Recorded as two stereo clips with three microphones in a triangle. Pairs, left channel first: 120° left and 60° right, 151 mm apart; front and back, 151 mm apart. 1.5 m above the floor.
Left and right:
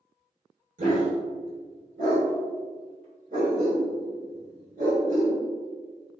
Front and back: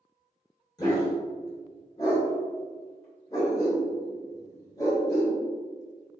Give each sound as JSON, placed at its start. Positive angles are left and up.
{"t": 0.8, "sound": "a dog barking", "azimuth_deg": -60, "distance_m": 1.9}